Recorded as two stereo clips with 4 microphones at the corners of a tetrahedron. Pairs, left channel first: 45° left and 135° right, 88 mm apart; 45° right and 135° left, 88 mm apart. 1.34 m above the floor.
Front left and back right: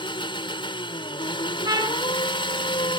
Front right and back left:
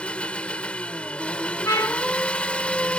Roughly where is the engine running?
Ahead left.